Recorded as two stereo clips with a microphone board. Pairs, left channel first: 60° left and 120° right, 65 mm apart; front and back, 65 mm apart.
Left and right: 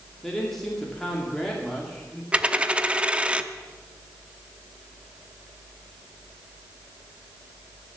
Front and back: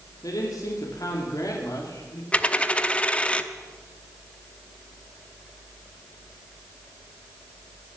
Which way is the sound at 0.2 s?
25° right.